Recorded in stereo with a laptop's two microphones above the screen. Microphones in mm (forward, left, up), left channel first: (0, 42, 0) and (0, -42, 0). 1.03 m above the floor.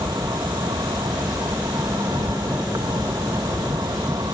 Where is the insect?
60° right (ahead or behind).